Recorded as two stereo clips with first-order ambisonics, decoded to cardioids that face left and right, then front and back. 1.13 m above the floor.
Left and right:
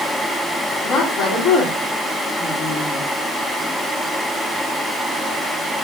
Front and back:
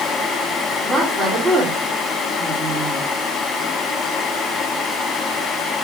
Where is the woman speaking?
70° left, 1.9 m.